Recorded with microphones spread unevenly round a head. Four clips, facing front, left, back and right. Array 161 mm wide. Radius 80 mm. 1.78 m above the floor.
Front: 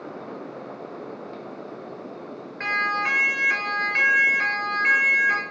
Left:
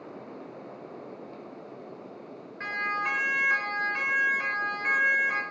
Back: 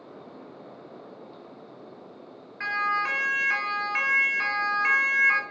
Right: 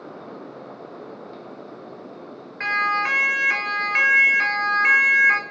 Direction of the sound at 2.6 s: 70° right.